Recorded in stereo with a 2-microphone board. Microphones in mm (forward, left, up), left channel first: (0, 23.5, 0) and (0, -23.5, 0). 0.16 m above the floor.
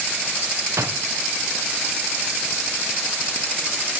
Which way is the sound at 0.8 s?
75° right (ahead or behind).